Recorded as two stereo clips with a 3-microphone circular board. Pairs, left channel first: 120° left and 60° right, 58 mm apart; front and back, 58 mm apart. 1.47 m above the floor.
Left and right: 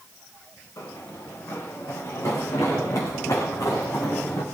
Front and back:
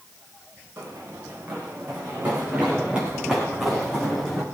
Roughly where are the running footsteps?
Behind left.